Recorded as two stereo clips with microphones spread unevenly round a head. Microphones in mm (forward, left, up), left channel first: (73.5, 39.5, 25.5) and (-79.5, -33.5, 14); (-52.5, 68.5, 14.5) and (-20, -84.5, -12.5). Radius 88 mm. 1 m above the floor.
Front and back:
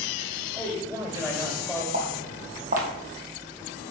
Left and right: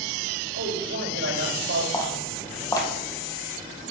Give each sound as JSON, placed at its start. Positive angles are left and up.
{"t": 0.5, "sound": "a man speaking", "azimuth_deg": -80, "distance_m": 4.0}
{"t": 1.9, "sound": "footsteps", "azimuth_deg": 165, "distance_m": 2.0}